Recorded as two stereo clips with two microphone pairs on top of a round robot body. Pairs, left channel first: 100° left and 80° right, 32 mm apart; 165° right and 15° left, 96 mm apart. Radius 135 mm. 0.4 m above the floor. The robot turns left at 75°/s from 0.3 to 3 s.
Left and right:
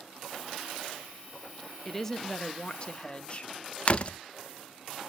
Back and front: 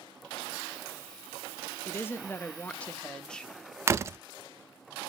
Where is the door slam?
50° left, 0.6 m.